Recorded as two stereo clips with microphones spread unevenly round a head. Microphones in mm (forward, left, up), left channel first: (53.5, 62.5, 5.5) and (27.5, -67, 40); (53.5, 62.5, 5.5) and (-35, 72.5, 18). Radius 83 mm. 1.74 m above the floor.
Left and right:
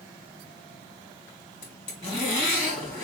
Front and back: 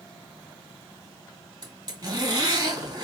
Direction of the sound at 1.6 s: 140° left.